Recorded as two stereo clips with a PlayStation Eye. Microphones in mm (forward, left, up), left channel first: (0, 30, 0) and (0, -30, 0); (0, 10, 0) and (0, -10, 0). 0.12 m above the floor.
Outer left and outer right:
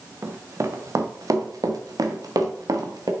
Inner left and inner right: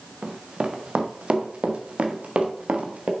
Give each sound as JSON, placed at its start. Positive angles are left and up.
{"t": 0.2, "sound": "running footsteps", "side_deg": -45, "distance_m": 1.6}